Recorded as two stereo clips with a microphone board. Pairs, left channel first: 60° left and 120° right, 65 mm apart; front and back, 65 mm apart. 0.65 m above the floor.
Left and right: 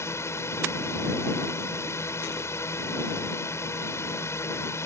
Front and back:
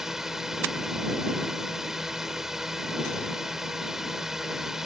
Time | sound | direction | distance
0.0 | a drone | 95° left | ?